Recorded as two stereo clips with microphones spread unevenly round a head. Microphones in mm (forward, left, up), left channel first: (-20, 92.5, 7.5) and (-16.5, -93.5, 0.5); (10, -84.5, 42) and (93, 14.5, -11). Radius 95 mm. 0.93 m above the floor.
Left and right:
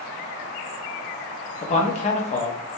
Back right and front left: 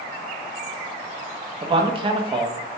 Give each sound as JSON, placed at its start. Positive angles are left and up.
{"t": 1.6, "sound": "a man speaking", "azimuth_deg": 40, "distance_m": 0.8}